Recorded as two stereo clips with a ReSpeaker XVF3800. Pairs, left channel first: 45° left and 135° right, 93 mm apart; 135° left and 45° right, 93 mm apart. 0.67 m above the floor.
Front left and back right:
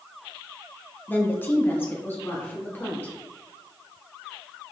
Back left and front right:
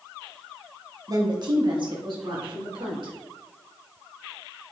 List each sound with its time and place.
1.1 s a woman speaking: 15° right, 0.7 m; by 3.1 s 20° right, 2.0 m